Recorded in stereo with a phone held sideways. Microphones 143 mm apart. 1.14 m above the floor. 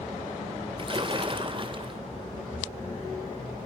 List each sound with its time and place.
0.8 s a splash: 35° right (ahead or behind), 2 m